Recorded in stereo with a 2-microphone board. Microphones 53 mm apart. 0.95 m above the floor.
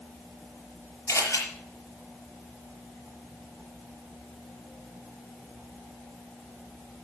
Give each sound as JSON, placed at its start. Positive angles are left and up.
{"t": 1.1, "sound": "a camera shutter", "side_deg": 80, "distance_m": 6.5}